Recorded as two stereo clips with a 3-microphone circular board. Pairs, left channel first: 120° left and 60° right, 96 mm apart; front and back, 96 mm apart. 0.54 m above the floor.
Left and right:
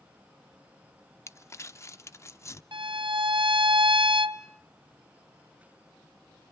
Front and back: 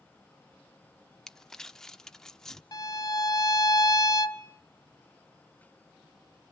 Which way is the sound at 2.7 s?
45° right.